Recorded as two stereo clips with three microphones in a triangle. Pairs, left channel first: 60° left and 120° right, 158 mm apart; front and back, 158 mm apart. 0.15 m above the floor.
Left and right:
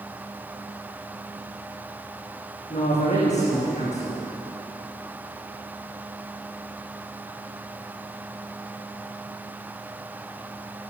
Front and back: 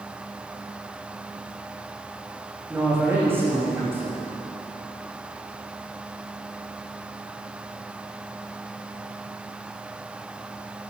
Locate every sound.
2.7 s a man speaking: 105° left, 9.5 m